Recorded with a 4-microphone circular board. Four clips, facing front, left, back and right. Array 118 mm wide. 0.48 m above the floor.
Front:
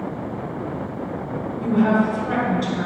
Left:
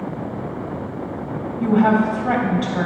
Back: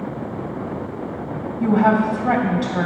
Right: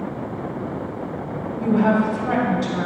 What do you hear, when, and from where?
1.6 s a woman speaking: 150° left, 2.5 m